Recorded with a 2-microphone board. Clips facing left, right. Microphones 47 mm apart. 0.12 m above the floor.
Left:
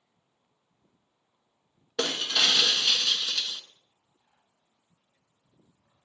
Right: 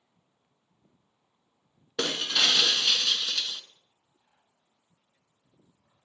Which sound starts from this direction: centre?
Breaking glass, at 2.0 s.